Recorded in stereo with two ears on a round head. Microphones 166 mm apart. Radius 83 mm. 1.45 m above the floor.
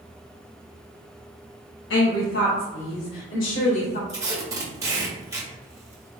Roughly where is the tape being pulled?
Centre.